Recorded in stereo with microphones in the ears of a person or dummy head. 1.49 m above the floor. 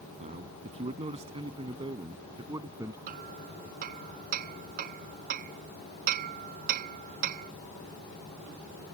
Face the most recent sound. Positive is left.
turn(degrees=-50)  # may be behind; listen again after turning